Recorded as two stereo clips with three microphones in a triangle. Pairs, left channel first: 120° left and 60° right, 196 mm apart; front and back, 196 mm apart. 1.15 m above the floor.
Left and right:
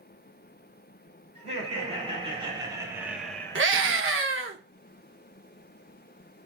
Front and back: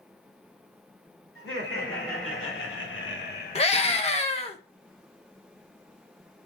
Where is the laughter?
5° right, 4 m; by 3.8 s 65° left, 1.2 m.